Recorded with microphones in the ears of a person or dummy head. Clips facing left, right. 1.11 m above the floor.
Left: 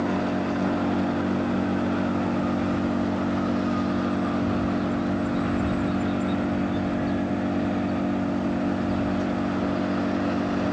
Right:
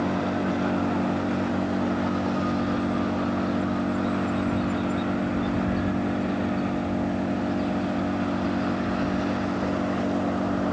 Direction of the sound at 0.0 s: 5° left (ahead or behind).